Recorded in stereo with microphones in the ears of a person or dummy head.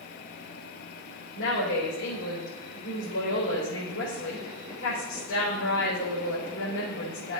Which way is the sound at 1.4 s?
85° left.